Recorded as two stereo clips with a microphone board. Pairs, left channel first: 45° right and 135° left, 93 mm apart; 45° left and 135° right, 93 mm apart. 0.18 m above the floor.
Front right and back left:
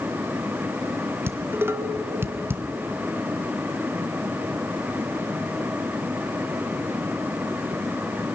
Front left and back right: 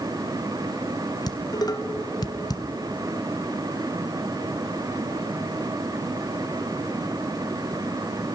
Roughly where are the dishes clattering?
Left.